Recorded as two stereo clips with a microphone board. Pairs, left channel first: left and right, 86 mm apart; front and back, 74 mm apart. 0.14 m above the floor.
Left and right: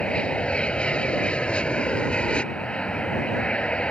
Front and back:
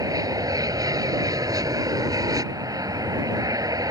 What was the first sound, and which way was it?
An aircraft, 165° left.